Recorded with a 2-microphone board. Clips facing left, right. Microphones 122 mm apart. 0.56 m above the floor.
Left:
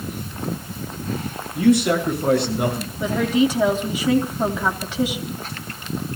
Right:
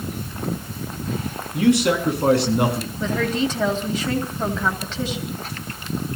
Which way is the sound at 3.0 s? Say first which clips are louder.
Left 4 dB; 10° left (ahead or behind).